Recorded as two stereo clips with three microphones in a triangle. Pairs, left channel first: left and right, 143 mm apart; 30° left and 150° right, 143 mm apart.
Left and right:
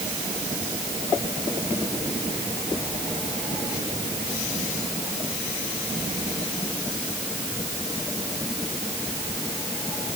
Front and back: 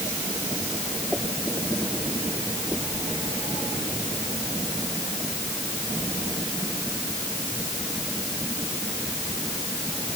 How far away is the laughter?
No laughter in this recording.